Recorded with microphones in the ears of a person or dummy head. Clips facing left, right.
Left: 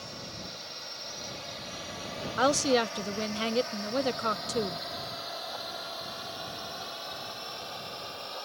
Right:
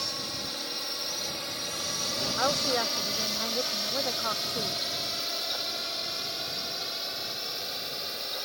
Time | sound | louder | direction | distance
0.0 | a drone | right 4 dB | 70° right (ahead or behind) | ?
2.4 | a woman speaking | left 5 dB | 35° left (ahead or behind) | ?